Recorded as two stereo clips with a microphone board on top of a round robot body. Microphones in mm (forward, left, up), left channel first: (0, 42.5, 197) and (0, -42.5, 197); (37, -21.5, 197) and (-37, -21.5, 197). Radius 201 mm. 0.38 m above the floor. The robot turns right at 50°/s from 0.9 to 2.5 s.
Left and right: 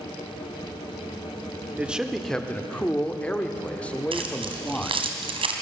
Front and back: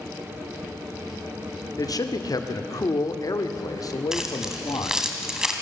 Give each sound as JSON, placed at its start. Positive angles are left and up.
{"t": 1.8, "sound": "a man speaking", "azimuth_deg": -20, "distance_m": 2.0}
{"t": 4.1, "sound": "keys jangling", "azimuth_deg": -95, "distance_m": 2.5}